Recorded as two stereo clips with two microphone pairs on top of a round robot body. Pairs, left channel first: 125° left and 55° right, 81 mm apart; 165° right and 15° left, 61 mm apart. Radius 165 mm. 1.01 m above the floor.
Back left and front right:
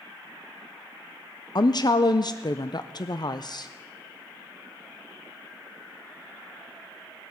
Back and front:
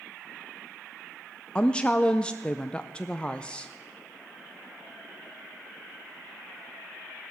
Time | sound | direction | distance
1.6 | a woman speaking | 135° left | 0.6 m